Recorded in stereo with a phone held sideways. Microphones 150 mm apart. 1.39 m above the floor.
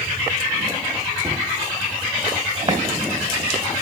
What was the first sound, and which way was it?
A cupboard door, 30° right (ahead or behind).